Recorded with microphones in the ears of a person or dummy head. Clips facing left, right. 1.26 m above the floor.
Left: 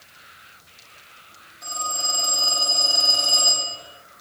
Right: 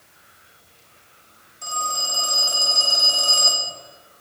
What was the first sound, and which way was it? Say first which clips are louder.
A phone ringing: right 2 dB; 40° right (ahead or behind).